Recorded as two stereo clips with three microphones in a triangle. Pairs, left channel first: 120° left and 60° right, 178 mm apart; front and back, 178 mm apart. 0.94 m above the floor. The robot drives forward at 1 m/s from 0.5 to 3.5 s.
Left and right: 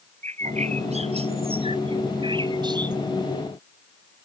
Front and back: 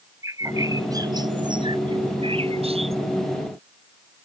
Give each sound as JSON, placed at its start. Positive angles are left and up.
{"t": 0.2, "sound": "a bird", "azimuth_deg": -110}